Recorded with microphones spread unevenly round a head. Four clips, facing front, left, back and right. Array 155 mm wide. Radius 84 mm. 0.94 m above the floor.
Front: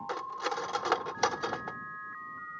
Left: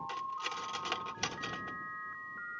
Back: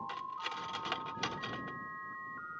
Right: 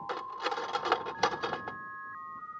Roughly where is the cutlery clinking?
Ahead right.